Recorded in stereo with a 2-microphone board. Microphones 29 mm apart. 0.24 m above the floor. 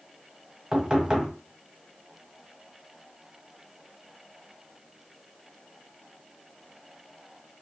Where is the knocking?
25° right (ahead or behind), 0.9 m.